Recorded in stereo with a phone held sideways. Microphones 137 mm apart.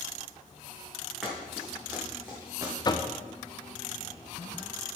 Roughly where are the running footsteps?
Centre.